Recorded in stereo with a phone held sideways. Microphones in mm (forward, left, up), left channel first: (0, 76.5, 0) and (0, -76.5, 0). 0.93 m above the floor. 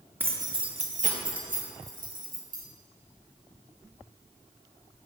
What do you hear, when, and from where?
0.2 s keys jangling: 15° right (ahead or behind), 0.6 m; by 2.6 s 65° right (ahead or behind), 1.4 m